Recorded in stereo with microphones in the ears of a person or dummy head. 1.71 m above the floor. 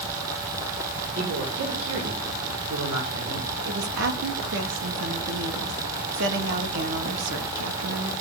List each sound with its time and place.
1.1 s a man speaking: 85° right, 5.5 m
3.6 s a woman speaking: 65° right (ahead or behind), 2.5 m